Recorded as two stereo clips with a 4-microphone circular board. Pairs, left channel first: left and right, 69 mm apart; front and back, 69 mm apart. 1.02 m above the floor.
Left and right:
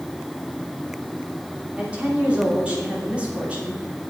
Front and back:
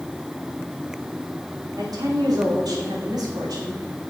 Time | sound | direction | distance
1.8 | a woman speaking | 165° right | 2.5 m